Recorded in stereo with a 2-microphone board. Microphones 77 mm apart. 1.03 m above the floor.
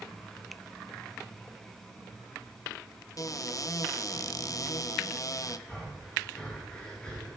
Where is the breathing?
10° left (ahead or behind), 6 m.